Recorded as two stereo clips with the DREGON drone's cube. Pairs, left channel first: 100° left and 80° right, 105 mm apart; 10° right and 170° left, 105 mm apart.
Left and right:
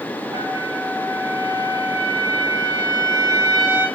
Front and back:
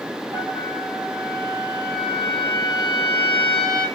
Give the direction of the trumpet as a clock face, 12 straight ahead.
4 o'clock.